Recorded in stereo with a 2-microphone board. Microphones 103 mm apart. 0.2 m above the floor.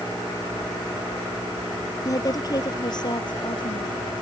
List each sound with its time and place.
2.0 s a woman speaking: 35° left (ahead or behind); by 4.0 s 55° left (ahead or behind)